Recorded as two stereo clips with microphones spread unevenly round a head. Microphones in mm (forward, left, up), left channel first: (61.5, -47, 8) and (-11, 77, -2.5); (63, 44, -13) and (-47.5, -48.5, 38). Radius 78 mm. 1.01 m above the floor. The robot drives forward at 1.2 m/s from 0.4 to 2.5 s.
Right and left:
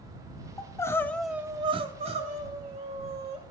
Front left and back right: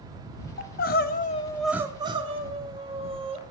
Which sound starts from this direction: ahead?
Crying, at 0.6 s.